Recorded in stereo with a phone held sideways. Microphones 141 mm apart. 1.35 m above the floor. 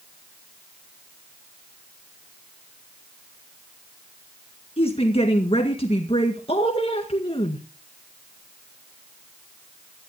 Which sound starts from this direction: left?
A woman speaking, at 4.8 s.